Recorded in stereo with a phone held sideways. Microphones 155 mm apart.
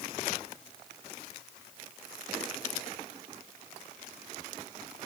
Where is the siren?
I don't hear a siren.